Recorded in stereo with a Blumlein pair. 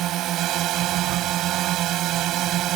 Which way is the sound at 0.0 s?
35° right.